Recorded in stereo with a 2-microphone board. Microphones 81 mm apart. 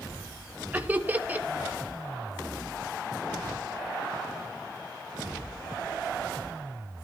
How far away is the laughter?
About 1.9 m.